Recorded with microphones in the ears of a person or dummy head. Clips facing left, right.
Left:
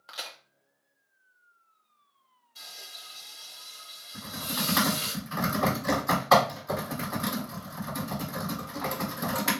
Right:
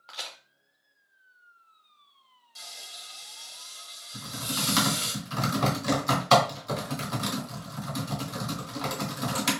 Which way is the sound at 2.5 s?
65° right (ahead or behind).